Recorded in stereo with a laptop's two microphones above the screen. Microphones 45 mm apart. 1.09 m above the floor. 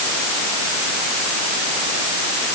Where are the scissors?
I don't hear scissors.